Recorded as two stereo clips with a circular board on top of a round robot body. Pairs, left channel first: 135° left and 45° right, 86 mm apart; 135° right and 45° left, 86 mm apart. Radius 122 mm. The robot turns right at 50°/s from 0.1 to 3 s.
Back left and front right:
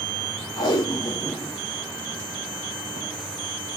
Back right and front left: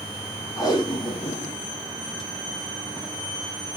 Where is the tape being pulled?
175° left, 1.2 m; by 3.1 s 65° right, 1.2 m.